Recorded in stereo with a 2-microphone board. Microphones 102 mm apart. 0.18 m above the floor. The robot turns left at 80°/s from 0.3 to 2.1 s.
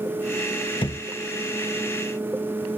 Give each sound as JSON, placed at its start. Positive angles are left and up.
{"t": 0.8, "sound": "a thud", "side_deg": 50, "distance_m": 1.4}